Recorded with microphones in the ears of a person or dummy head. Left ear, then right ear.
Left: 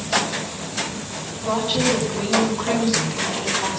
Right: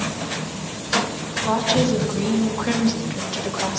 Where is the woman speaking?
70° right (ahead or behind), 7 m.